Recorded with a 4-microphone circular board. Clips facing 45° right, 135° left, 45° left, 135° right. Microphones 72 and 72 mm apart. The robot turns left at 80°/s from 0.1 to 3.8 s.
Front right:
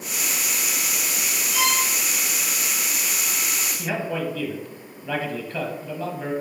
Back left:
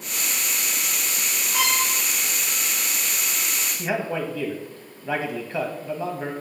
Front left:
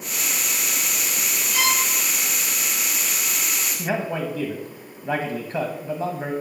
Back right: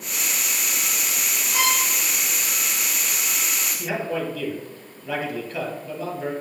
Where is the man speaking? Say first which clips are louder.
Back left 1 dB, front left 1 dB; 70° left, 1.2 m.